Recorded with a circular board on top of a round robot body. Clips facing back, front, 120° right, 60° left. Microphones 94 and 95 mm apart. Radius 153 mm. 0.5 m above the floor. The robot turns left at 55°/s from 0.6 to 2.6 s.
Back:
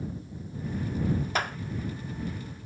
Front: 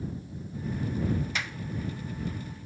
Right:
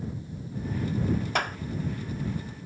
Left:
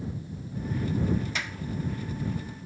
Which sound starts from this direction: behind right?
A clap, at 1.4 s.